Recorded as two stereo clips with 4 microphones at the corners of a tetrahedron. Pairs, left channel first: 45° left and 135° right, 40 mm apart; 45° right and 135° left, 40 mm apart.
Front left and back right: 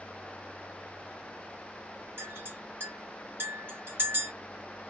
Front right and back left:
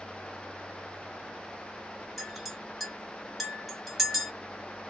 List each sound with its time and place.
2.2 s a clink: 135° right, 1.7 m